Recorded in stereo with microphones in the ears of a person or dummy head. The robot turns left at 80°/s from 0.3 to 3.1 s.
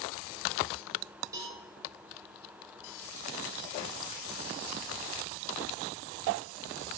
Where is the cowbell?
15° right (ahead or behind), 1.5 m; by 1.6 s 35° right (ahead or behind), 1.5 m.